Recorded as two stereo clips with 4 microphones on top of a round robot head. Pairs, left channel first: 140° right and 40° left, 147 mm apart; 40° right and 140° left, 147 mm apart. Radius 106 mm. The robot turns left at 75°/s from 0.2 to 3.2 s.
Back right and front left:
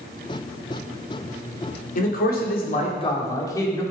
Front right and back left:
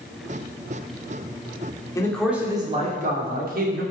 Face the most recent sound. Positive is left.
turn(degrees=155)